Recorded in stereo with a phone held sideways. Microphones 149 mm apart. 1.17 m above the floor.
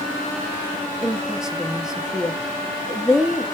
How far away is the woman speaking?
About 0.6 m.